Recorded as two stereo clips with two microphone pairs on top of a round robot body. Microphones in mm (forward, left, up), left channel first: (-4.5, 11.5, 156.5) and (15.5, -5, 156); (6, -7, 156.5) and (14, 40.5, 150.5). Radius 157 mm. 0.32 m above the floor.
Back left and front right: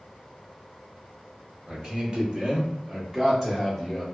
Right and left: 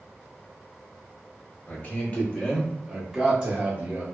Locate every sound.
1.7 s a man speaking: 65° right, 1.3 m; by 4.0 s 40° left, 1.5 m